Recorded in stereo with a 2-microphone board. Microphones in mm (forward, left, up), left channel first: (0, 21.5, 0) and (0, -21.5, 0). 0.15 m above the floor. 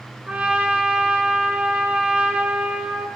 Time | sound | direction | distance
0.3 | a trumpet | 30° right (ahead or behind) | 0.6 m